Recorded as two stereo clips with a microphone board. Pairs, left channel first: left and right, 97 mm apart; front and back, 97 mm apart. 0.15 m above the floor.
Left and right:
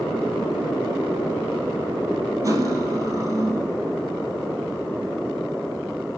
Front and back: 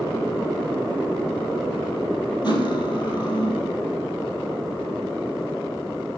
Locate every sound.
2.4 s cutlery clinking: 40° right, 2 m